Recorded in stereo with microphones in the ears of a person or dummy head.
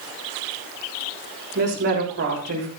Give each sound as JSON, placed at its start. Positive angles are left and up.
{"t": 1.6, "sound": "a woman speaking", "side_deg": -55, "distance_m": 7.0}